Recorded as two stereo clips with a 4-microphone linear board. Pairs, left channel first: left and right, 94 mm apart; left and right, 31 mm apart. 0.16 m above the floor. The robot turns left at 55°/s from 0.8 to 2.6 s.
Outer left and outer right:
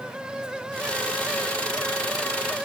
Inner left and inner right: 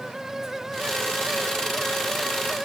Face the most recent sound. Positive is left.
No sound to turn to.